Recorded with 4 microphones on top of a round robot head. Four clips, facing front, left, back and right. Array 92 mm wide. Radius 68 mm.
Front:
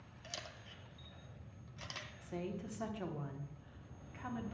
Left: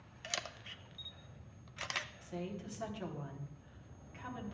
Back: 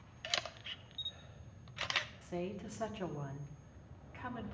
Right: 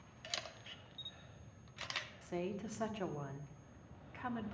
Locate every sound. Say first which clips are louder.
0.2 s a camera shutter: left 4 dB, back 9 dB; 160° left, 0.5 m
2.2 s a woman speaking: right 2 dB, back 2 dB; 110° right, 1.3 m